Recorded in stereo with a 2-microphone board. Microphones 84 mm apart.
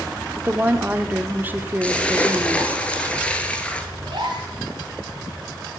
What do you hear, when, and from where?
0.4 s a woman speaking: 25° right (ahead or behind), 0.8 m
1.8 s a splash: 15° left (ahead or behind), 1.3 m
4.0 s a gasp: 60° right (ahead or behind), 2.5 m